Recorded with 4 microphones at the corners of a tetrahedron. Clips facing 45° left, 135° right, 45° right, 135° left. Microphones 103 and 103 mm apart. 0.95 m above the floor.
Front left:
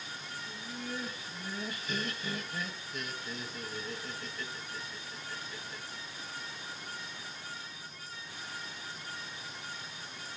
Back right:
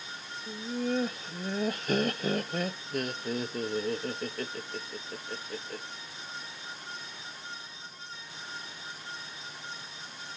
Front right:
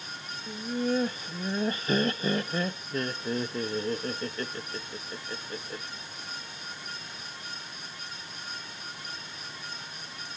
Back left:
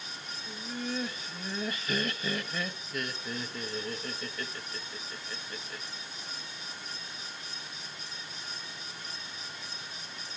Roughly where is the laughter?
Right.